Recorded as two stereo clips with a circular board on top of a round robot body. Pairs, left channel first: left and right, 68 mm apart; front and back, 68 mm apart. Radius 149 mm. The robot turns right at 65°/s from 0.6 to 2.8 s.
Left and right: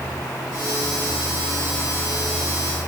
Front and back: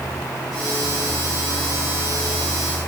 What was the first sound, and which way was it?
Only background noise.